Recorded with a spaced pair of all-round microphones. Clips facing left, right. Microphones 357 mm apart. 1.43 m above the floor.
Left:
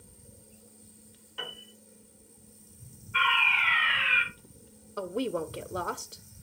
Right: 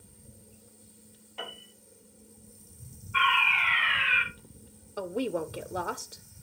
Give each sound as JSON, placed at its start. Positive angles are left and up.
{"t": 1.4, "sound": "a piano", "side_deg": 20, "distance_m": 2.5}
{"t": 3.1, "sound": "a fire alarm", "side_deg": 0, "distance_m": 7.5}
{"t": 5.0, "sound": "a woman speaking", "side_deg": 5, "distance_m": 0.7}